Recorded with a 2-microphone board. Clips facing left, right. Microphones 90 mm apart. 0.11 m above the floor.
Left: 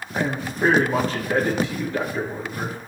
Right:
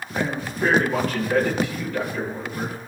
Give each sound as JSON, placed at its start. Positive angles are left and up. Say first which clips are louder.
{"t": 0.1, "sound": "a man speaking", "louder": "left 1 dB", "side_deg": 30, "distance_m": 6.5}